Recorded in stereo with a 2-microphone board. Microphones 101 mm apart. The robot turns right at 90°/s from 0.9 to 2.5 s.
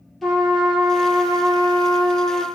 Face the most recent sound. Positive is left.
turn(degrees=-40)